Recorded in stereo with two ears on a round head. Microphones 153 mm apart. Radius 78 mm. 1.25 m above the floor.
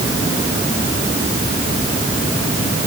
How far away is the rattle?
No rattle in this recording.